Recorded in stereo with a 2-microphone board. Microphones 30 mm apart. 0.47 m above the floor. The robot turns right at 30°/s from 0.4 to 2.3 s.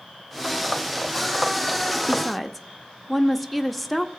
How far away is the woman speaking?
About 0.7 m.